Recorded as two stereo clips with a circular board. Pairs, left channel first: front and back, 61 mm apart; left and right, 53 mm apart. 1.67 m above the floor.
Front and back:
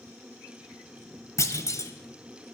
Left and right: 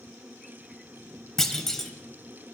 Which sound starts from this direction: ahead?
A clunk, at 1.4 s.